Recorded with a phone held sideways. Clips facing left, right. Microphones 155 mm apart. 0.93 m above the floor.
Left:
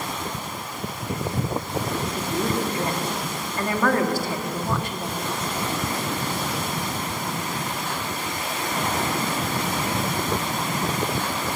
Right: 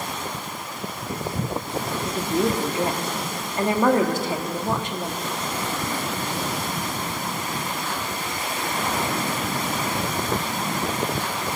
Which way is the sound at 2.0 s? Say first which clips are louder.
Right 3 dB; 20° right (ahead or behind).